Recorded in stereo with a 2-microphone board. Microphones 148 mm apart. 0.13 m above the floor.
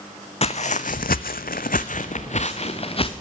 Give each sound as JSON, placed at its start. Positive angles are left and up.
{"t": 0.4, "sound": "footsteps", "side_deg": 45, "distance_m": 0.7}